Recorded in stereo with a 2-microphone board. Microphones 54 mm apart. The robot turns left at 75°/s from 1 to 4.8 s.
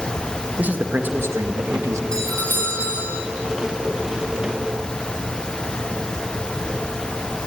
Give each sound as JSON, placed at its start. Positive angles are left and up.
{"t": 0.6, "sound": "a man speaking", "azimuth_deg": -35, "distance_m": 1.7}
{"t": 2.1, "sound": "a doorbell", "azimuth_deg": 165, "distance_m": 4.5}